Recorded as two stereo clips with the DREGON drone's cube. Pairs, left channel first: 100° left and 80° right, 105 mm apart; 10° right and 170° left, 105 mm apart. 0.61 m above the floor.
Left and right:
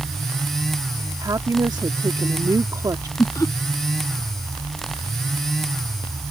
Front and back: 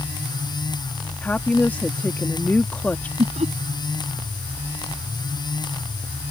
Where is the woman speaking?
75° right.